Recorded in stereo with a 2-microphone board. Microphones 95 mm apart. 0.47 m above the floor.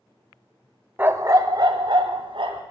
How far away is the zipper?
No zipper in this recording.